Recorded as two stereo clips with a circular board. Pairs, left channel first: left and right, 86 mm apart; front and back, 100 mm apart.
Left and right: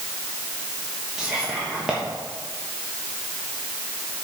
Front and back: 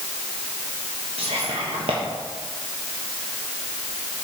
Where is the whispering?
170° right, 1.3 m.